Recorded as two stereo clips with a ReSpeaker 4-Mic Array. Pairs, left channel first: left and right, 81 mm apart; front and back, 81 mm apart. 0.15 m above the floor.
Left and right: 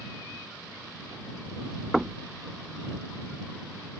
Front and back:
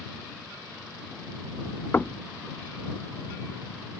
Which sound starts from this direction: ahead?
Knocking, at 1.9 s.